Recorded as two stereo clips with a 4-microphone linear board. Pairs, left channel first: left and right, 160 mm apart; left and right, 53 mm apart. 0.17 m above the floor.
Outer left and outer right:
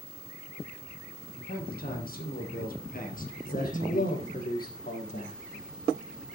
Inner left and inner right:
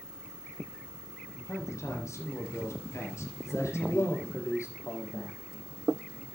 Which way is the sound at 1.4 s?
70° left (ahead or behind).